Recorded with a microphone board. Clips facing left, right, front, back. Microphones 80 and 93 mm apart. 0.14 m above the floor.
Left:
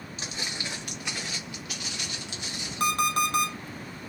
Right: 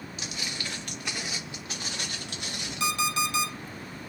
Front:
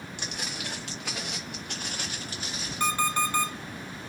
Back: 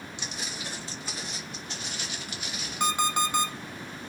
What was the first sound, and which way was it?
Footsteps, 35° left.